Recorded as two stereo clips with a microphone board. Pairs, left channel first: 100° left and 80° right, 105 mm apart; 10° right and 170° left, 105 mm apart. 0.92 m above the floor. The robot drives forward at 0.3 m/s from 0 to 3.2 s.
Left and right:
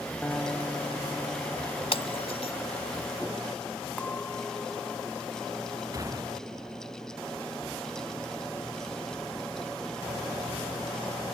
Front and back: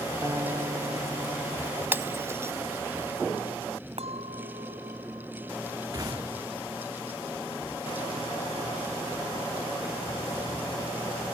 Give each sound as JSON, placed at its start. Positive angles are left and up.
{"t": 0.2, "sound": "a guitar", "azimuth_deg": 175}
{"t": 1.9, "sound": "breaking glass", "azimuth_deg": 100}
{"t": 4.0, "sound": "a clink", "azimuth_deg": 175}
{"t": 5.9, "sound": "a gunshot", "azimuth_deg": -135}